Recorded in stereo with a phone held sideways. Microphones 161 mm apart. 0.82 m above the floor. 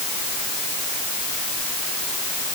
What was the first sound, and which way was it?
Only background noise.